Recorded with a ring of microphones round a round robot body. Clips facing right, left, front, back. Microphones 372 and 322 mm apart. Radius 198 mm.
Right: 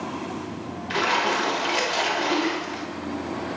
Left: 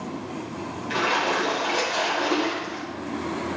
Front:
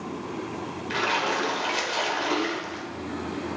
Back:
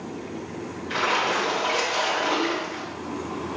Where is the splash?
25° right, 1.4 m.